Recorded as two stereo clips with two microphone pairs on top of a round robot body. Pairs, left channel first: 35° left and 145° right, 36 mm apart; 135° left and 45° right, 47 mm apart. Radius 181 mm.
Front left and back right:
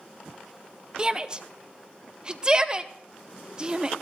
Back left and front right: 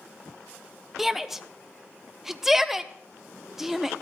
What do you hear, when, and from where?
1.0 s a shout: 105° right, 0.9 m